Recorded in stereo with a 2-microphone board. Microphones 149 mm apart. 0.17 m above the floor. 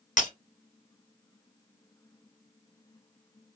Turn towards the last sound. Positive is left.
turn(degrees=60)  # may be behind; listen again after turning